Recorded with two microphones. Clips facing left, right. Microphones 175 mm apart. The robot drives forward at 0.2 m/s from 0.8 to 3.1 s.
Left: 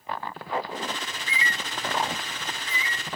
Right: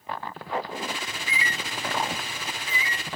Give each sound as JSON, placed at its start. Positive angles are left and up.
{"t": 1.1, "sound": "a bird", "side_deg": -20, "distance_m": 1.1}